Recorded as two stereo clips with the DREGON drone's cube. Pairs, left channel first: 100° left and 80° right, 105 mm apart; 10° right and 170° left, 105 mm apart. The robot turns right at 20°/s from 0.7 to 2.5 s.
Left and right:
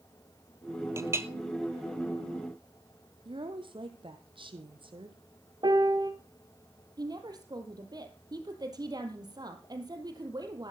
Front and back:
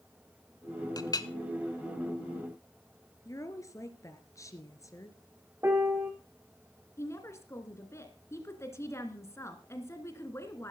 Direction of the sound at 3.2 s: 65° right.